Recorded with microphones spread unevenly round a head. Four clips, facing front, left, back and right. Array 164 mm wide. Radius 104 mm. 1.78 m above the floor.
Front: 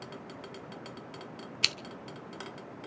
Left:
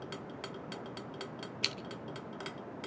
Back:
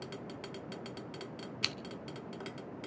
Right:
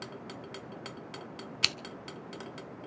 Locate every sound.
1.6 s scissors: 65° right, 0.8 m